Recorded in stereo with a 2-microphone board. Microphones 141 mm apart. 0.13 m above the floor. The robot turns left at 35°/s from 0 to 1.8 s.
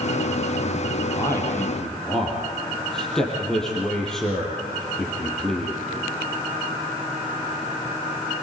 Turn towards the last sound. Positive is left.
turn(degrees=5)  # may be behind; listen again after turning